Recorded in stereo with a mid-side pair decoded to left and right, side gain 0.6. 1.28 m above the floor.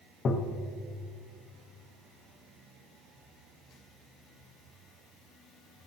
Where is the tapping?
40° left, 1.0 m.